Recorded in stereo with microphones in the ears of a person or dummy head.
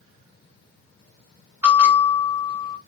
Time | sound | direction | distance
1.6 | a bell | 10° right (ahead or behind) | 1.4 m